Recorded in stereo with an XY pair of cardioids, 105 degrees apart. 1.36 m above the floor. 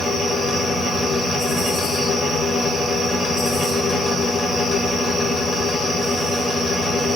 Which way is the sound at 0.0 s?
50° left.